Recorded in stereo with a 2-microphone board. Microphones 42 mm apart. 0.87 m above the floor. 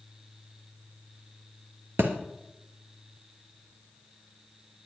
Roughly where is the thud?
Right.